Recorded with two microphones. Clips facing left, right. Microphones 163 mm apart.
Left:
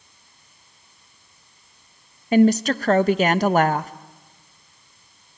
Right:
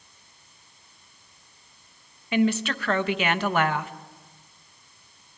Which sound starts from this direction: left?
A woman speaking, at 2.3 s.